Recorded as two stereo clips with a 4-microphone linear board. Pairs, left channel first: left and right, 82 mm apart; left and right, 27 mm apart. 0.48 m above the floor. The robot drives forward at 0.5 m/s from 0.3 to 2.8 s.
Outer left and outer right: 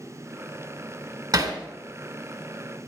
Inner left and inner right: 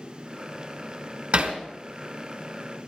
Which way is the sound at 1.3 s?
55° right (ahead or behind).